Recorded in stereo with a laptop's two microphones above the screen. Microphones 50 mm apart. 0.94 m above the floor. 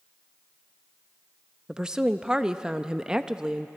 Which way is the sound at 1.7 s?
15° right (ahead or behind).